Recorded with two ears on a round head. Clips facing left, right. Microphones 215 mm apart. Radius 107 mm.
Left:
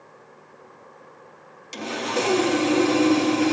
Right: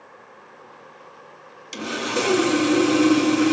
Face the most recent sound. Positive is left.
turn(degrees=-15)  # may be behind; listen again after turning